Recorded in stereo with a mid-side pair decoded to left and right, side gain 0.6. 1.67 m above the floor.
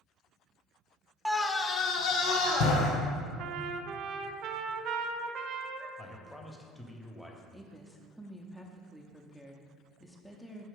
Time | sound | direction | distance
1.2 | a scream | 5° right | 0.5 m
3.4 | a trumpet | 55° right | 0.5 m
6.0 | a man speaking | 5° left | 1.0 m
7.5 | a woman speaking | straight ahead | 0.7 m